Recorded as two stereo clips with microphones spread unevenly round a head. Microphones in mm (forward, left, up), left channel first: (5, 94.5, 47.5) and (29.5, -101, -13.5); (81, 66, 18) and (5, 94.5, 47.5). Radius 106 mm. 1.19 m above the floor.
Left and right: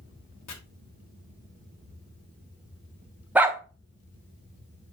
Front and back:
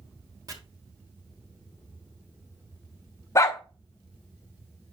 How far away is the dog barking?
About 0.7 m.